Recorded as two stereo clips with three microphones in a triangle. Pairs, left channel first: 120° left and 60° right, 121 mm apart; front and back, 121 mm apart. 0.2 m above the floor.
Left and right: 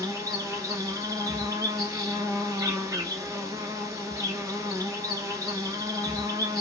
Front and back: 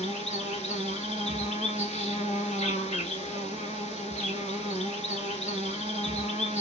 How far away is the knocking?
No knocking in this recording.